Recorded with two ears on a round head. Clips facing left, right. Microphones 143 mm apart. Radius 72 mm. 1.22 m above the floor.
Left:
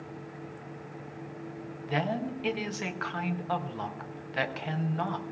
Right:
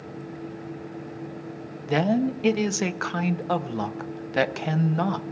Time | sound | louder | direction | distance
1.9 | a woman speaking | right 9 dB | 55° right (ahead or behind) | 0.7 m